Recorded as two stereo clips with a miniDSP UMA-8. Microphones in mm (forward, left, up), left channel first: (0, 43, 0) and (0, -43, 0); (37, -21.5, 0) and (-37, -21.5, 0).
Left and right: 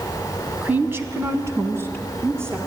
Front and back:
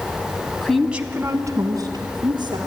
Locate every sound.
0.6 s a woman speaking: 50° right, 1.0 m; by 2.6 s 150° right, 3 m